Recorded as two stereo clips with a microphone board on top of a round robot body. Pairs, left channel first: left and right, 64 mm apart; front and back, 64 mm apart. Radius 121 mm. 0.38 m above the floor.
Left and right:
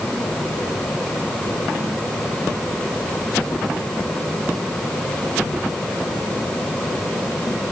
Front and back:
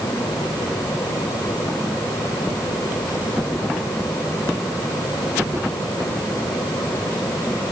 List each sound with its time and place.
Only background noise.